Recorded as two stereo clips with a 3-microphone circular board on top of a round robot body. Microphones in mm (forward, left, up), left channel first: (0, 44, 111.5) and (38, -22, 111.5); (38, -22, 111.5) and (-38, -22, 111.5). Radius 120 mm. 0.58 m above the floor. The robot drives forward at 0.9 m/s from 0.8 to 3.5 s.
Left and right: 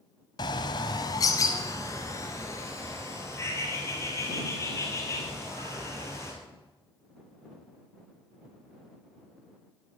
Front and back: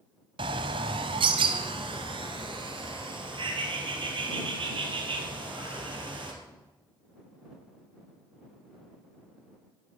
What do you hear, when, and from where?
0.4 s a bird: 160° left, 0.6 m; by 6.3 s 175° left, 3 m